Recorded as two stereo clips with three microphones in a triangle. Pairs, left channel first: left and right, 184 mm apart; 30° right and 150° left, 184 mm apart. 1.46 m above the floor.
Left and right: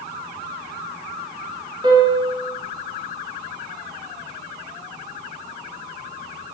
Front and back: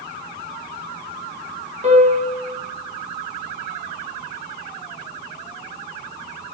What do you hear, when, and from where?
1.8 s a piano: 155° right, 1.5 m